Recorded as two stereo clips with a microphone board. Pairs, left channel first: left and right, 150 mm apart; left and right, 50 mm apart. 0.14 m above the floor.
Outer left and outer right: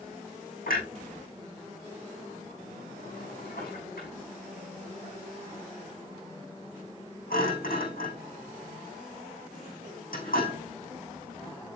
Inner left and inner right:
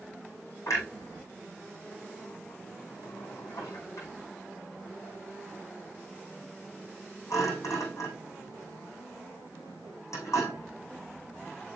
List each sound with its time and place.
0.7 s a clunk: 75° left (ahead or behind), 6.5 m